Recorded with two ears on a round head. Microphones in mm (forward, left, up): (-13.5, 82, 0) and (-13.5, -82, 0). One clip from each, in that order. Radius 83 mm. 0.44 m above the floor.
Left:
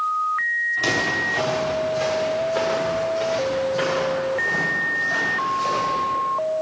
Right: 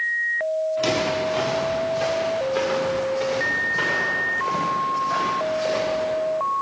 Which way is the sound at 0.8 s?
Centre (ahead or behind).